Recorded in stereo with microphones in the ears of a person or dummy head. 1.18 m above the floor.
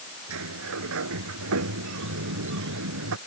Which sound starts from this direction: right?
A sliding door, at 0.3 s.